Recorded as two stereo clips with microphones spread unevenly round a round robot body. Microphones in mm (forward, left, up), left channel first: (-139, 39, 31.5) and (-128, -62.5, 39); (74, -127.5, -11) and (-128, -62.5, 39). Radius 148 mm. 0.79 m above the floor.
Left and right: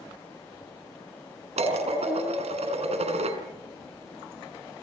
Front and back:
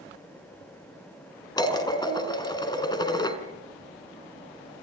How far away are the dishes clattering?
About 5 m.